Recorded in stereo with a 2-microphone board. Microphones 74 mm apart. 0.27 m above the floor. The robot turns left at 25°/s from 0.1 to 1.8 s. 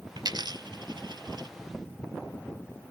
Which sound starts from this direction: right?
A dropped coin, at 0.2 s.